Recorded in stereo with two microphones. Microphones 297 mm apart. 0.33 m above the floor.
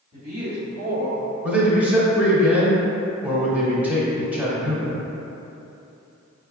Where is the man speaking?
5° right (ahead or behind), 0.9 m.